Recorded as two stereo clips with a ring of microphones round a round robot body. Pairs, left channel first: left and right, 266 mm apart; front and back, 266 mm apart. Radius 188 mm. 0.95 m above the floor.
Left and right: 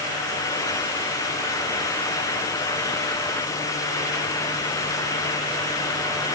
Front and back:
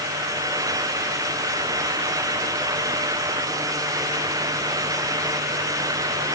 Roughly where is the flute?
No flute in this recording.